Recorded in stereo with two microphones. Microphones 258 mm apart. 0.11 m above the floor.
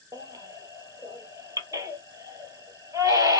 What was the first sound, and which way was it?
A baby crying, 15° right (ahead or behind).